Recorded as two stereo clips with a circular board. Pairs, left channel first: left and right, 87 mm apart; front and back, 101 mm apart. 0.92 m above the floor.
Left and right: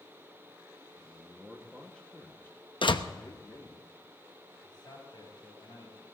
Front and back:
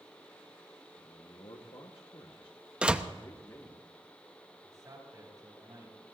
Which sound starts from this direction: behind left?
A man speaking, at 4.6 s.